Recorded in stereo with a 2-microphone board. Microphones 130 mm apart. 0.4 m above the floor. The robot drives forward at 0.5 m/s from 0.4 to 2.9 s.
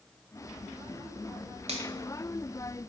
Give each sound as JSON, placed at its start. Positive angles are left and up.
{"t": 1.7, "sound": "a finger snap", "side_deg": -55, "distance_m": 1.2}